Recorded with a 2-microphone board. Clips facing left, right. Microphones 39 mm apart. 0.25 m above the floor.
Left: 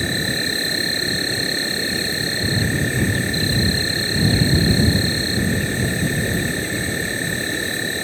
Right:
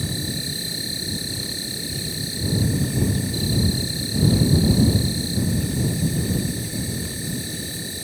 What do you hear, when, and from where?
0.0 s an insect: 50° left (ahead or behind)